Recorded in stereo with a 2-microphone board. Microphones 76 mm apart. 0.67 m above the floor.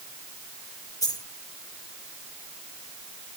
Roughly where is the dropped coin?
Left.